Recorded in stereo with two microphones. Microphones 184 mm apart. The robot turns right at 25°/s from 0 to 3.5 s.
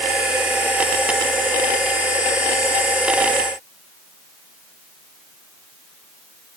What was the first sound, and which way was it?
Only background noise.